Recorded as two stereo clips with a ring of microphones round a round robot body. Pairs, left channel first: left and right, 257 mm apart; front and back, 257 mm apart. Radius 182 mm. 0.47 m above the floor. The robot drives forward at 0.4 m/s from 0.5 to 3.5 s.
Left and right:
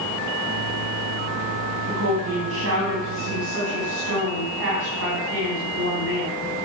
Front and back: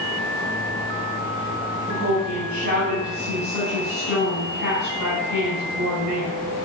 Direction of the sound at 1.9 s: 110° right.